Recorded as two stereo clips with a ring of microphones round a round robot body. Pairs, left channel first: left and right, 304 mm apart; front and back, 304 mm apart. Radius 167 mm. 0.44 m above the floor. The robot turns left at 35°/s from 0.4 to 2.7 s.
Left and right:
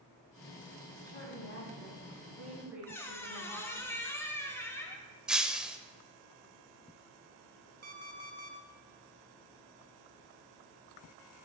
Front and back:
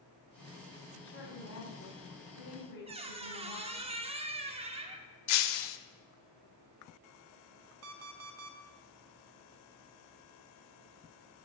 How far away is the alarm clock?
About 0.5 m.